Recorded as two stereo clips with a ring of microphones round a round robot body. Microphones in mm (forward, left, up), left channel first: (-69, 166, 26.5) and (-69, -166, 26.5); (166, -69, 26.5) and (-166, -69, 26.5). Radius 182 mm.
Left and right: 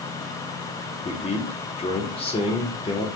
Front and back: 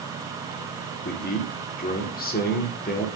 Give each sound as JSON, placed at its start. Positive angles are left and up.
{"t": 1.1, "sound": "a man speaking", "azimuth_deg": 35, "distance_m": 1.4}